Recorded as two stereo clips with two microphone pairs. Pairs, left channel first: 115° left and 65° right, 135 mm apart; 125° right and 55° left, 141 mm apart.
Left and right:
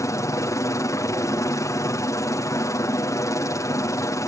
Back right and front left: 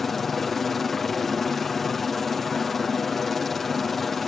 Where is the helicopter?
145° left.